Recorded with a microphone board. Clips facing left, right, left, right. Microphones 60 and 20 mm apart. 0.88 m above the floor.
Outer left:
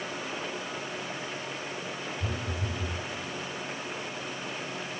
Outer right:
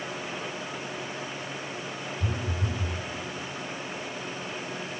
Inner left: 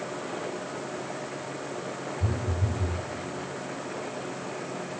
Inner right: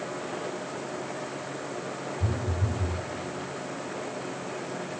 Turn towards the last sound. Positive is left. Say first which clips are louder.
# outer right 2 dB, even
turn(degrees=-5)  # may be behind; listen again after turning